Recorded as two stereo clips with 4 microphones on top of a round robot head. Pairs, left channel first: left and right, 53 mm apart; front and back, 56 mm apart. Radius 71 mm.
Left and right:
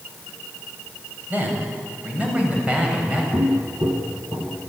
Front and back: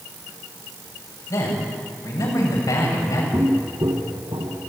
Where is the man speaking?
30° right, 7.5 m; by 3.2 s 20° right, 7.5 m.